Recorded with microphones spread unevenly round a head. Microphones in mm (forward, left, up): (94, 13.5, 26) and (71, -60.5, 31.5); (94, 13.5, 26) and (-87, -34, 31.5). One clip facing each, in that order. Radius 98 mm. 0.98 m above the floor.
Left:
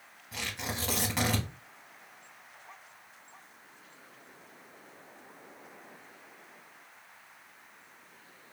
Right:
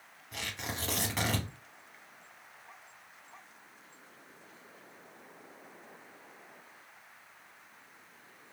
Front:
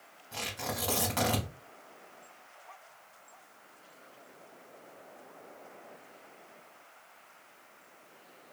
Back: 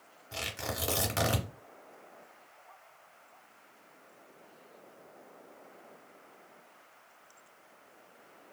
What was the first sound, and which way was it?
Tearing paper, 160° left.